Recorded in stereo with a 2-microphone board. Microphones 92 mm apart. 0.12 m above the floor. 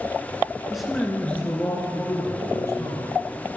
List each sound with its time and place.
0.7 s a man speaking: 5° right (ahead or behind), 1.1 m; by 3.1 s 35° left (ahead or behind), 3 m